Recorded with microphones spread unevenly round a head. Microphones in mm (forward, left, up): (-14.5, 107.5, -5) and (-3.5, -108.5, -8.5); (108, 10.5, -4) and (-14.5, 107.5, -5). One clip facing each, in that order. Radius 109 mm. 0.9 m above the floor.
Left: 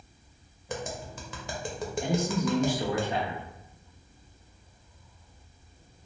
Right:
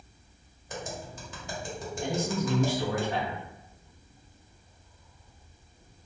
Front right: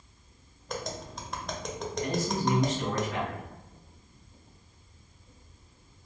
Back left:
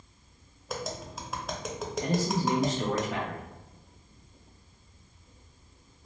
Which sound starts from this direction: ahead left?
Tapping, at 0.7 s.